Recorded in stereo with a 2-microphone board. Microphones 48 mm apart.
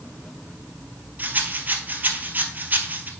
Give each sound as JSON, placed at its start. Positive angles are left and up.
{"t": 1.2, "sound": "a rattle", "side_deg": -40, "distance_m": 0.9}